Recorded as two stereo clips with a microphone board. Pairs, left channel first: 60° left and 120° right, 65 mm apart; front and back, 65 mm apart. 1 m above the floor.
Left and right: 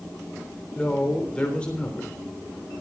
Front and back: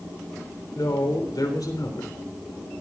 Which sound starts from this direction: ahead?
A man speaking, at 0.8 s.